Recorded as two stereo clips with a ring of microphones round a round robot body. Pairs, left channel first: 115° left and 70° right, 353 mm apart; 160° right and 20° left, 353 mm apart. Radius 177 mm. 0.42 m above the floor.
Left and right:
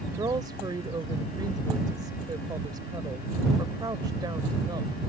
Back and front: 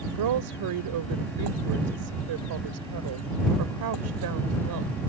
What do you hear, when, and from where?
0.1 s a woman speaking: 10° left